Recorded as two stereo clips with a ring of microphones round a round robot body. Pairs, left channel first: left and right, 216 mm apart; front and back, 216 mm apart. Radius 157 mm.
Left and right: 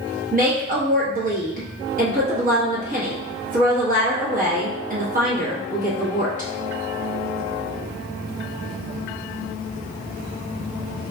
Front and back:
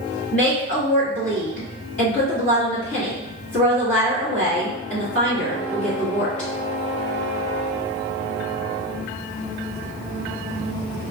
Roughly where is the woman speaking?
Ahead right.